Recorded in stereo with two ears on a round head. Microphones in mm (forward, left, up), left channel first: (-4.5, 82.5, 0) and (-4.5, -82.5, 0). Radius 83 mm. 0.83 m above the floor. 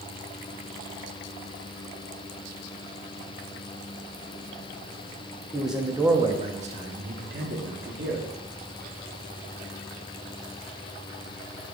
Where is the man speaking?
Centre (ahead or behind), 1.1 m; by 8.2 s 75° right (ahead or behind), 1.8 m.